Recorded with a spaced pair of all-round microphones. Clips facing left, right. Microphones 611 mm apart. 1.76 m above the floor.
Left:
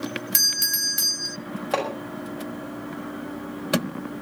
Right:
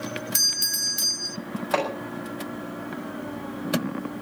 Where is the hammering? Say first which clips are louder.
Even; 55° left (ahead or behind), 6.5 m.